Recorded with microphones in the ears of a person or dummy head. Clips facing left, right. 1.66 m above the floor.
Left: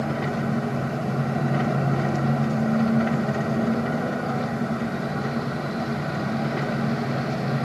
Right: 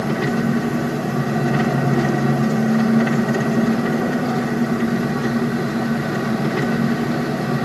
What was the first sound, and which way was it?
An engine running, 75° right (ahead or behind).